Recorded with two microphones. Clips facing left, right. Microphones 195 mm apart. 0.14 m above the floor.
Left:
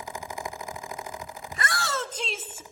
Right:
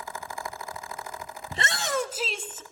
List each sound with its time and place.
1.5 s a shout: 30° right (ahead or behind), 1.3 m; by 2.6 s 15° left (ahead or behind), 1.1 m